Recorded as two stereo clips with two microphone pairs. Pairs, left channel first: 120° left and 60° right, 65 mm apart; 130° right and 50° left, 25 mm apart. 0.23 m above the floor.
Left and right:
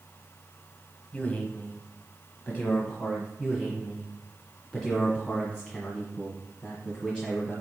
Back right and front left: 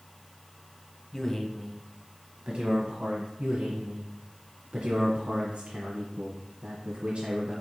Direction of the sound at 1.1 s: Straight behind.